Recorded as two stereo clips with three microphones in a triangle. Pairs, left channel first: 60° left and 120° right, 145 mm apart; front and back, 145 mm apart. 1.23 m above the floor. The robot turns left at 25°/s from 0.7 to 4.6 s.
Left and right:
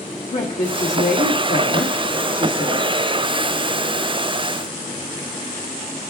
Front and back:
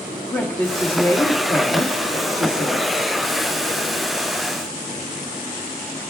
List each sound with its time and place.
0.3 s a woman speaking: 65° left, 1.4 m; by 2.9 s 10° left, 1.4 m